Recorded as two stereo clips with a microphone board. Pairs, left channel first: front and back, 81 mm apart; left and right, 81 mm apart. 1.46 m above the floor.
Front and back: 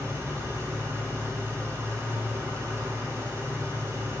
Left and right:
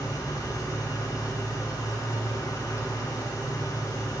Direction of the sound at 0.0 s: 130° left.